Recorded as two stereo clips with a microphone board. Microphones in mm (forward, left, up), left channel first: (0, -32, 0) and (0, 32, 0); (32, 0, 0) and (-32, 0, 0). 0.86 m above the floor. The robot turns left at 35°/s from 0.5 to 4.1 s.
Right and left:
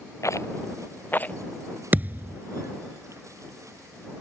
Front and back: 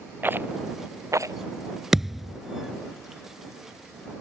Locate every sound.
0.2 s a rattle: 125° right; by 1.4 s 155° right
1.9 s a thud: 105° left; by 2.4 s 85° left